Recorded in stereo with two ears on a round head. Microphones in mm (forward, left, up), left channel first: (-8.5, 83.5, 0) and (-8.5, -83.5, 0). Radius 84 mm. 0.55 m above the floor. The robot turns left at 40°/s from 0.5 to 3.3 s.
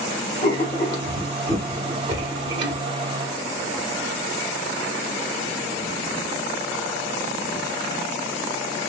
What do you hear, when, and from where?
0.4 s writing: 40° left, 0.9 m; by 2.8 s 50° right, 0.9 m